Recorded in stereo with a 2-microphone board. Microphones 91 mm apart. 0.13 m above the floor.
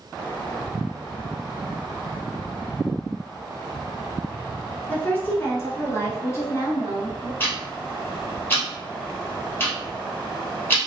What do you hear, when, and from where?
4.9 s a woman speaking: 15° left (ahead or behind), 1.4 m; by 7.3 s 30° left (ahead or behind), 2 m
7.4 s ticking: 25° left (ahead or behind), 2.5 m